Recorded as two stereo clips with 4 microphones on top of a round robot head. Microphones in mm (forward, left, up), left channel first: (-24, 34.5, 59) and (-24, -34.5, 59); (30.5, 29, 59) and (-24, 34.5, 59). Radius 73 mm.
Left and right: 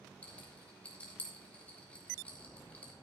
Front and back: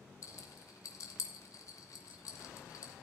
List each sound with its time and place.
0.2 s a rattle: 15° left, 2.5 m